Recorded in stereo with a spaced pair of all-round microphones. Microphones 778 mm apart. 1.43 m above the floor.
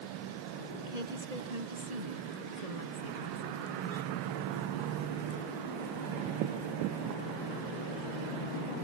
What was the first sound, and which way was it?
A woman speaking, 55° right (ahead or behind).